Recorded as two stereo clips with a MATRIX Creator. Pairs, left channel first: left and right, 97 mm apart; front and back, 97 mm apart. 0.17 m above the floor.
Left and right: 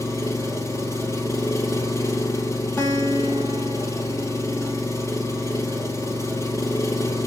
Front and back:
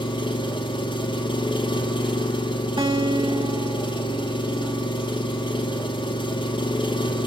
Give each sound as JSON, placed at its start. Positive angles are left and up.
{"t": 0.0, "sound": "an engine running", "azimuth_deg": 30, "distance_m": 2.0}
{"t": 2.8, "sound": "a guitar", "azimuth_deg": 160, "distance_m": 5.5}